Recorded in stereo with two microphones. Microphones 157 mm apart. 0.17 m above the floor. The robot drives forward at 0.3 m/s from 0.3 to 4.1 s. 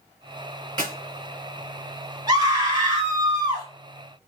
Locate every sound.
0.8 s a clap: 30° right (ahead or behind), 2.0 m
2.3 s a scream: 30° right (ahead or behind), 1.5 m